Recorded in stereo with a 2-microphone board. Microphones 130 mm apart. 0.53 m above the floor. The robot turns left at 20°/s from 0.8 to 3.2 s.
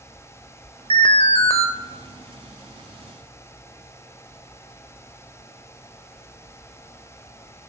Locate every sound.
0.9 s an alarm: 40° left (ahead or behind), 1.7 m; by 1.7 s 55° left (ahead or behind), 1.7 m